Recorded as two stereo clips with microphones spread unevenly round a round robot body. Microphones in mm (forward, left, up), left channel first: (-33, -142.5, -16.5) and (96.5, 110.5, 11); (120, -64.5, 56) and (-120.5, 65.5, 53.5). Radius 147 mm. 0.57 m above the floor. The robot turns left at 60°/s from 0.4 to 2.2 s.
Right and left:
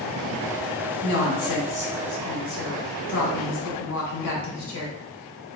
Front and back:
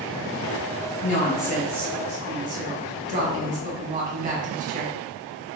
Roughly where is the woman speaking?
Right.